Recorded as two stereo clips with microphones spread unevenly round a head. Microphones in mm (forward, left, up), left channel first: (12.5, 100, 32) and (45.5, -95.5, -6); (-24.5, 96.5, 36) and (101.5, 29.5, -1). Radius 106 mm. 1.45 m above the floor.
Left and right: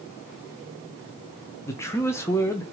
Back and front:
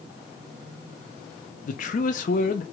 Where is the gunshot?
I don't hear a gunshot.